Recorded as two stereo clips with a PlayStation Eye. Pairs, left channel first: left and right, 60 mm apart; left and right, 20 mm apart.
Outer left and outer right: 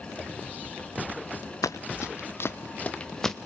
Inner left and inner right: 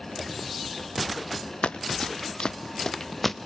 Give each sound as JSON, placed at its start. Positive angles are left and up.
{"t": 1.6, "sound": "running footsteps", "side_deg": 75, "distance_m": 1.2}